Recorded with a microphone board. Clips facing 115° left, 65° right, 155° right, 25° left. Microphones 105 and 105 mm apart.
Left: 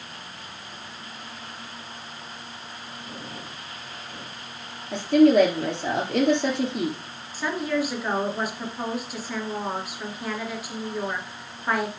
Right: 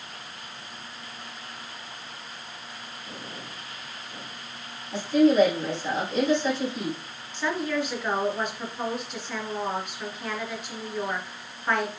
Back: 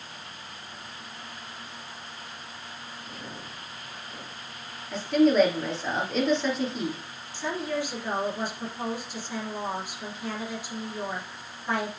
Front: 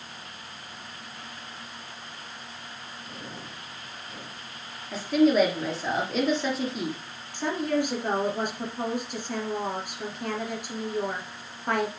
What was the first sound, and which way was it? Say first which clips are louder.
A woman speaking: left 3 dB, even; 110° left.